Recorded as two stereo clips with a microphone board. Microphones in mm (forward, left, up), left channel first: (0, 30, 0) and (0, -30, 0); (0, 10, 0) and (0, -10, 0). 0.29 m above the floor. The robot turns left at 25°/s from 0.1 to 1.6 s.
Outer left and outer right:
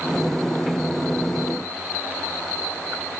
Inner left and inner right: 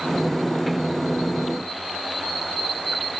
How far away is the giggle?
I don't hear a giggle.